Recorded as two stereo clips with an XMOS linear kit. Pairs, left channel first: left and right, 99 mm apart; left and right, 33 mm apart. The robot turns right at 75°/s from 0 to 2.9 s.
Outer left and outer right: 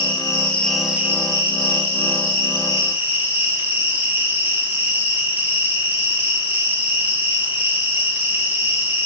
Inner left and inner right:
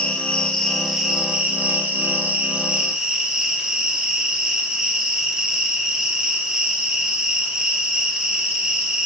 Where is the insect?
120° left, 2.5 m; by 9.1 s 20° right, 2.5 m.